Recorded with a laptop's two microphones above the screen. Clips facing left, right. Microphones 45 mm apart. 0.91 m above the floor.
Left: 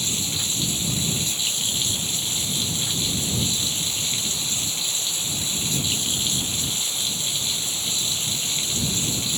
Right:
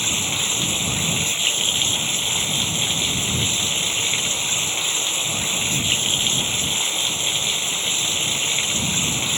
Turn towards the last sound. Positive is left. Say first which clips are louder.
# right 5 dB
turn(degrees=-50)  # may be behind; listen again after turning